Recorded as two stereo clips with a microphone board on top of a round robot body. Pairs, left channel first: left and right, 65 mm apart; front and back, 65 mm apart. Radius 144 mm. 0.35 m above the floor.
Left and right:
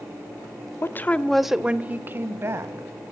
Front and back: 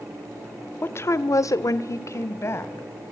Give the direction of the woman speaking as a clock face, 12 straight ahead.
10 o'clock.